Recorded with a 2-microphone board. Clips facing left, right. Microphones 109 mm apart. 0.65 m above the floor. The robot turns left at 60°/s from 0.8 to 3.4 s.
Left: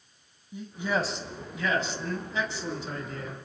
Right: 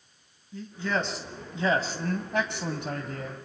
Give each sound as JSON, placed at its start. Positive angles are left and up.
{"t": 0.5, "sound": "a man speaking", "azimuth_deg": 15, "distance_m": 3.5}